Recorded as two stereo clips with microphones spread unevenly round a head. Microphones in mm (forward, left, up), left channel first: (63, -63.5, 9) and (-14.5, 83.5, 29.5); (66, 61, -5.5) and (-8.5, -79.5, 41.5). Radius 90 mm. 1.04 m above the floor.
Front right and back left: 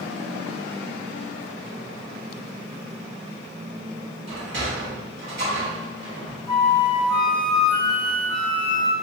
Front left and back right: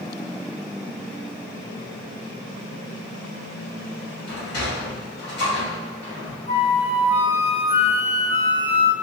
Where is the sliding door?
100° left, 1.9 m.